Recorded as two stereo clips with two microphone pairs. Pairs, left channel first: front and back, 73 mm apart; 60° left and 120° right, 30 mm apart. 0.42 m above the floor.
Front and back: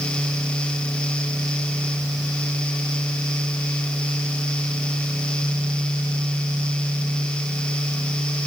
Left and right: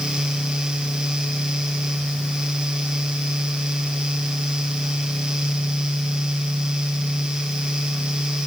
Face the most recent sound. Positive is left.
No sound to turn to.